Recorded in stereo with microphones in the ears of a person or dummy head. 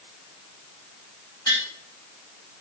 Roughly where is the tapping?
Left.